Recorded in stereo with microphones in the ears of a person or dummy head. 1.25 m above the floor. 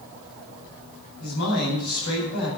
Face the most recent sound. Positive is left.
turn(degrees=55)  # may be behind; listen again after turning